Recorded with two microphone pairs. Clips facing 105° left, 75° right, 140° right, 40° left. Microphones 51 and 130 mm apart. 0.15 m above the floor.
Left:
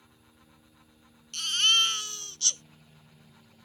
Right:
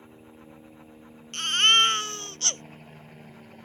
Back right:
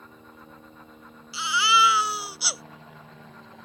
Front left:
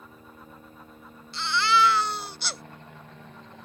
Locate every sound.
0.0 s a helicopter: 55° right; by 3.6 s 50° right
1.3 s a baby crying: 60° right